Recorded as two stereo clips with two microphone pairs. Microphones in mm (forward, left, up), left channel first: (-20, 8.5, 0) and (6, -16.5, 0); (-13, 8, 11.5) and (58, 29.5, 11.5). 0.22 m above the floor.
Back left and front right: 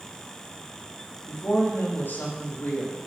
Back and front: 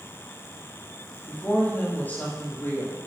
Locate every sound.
1.3 s a woman speaking: 130° left, 7 m; by 3.0 s 135° left, 6 m